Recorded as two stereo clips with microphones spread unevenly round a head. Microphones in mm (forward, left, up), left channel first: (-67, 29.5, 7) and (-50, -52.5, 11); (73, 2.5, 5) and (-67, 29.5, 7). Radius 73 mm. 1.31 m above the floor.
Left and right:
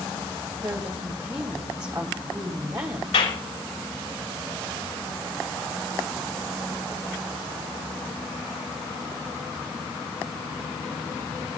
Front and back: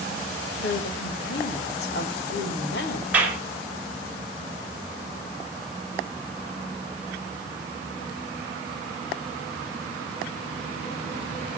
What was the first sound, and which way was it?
A woman speaking, 10° right.